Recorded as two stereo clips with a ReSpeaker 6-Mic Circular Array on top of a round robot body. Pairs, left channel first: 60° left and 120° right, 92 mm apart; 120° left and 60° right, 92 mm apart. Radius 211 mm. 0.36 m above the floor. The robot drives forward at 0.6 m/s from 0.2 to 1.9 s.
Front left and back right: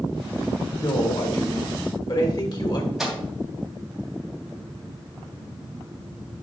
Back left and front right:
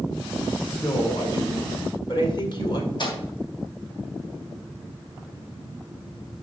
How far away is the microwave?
About 3 m.